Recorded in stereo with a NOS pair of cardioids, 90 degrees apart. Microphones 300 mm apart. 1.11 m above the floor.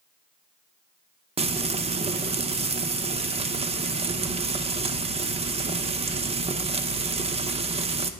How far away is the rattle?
No rattle in this recording.